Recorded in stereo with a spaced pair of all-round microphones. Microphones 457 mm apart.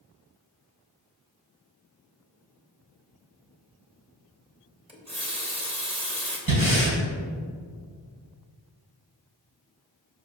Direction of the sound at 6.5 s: 45° right (ahead or behind).